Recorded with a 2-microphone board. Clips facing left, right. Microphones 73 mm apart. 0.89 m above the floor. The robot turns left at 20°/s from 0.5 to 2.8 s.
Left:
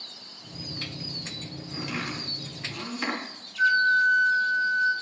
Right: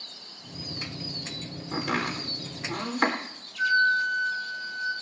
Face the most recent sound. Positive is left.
turn(degrees=25)  # may be behind; listen again after turning